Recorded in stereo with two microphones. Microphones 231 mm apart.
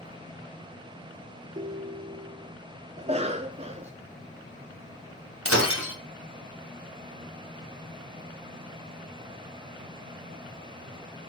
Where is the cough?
30° right (ahead or behind), 0.6 m.